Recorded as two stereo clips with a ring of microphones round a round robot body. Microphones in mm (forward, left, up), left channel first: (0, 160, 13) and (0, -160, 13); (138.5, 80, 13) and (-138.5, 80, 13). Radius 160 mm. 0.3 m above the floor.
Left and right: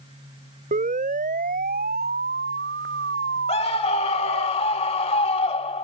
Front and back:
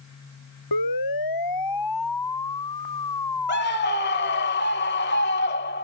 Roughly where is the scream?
Ahead left.